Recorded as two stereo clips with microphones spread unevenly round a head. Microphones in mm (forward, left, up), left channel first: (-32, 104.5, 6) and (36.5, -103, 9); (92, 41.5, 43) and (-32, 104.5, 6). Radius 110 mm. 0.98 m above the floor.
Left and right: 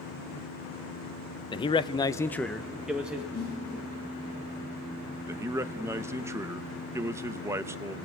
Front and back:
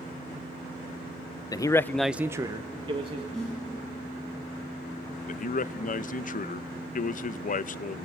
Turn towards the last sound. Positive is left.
turn(degrees=5)